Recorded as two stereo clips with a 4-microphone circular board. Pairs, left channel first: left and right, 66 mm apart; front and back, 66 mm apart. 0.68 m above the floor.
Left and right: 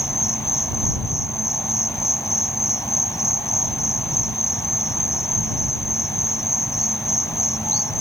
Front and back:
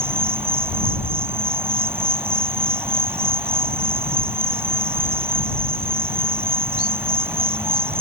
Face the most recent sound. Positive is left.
turn(degrees=130)